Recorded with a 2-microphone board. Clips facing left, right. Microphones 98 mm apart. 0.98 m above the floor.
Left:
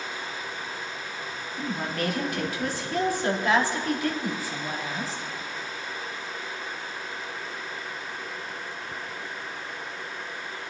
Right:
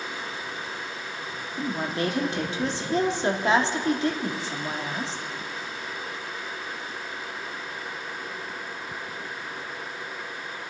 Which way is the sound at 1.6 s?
25° right (ahead or behind).